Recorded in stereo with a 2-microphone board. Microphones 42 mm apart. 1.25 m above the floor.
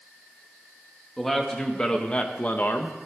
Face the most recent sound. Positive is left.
turn(degrees=60)  # may be behind; listen again after turning